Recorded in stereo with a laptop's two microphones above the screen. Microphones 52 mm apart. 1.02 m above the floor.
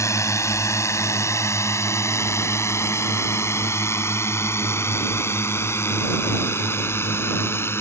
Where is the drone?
70° left (ahead or behind); by 7.8 s 50° left (ahead or behind).